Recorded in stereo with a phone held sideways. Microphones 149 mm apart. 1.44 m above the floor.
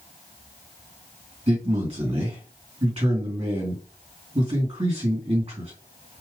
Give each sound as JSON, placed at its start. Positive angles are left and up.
{"t": 1.5, "sound": "a man speaking", "side_deg": -50, "distance_m": 2.0}